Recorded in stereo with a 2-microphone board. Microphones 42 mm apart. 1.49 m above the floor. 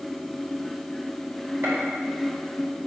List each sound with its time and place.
1.6 s a gunshot: 80° right, 4 m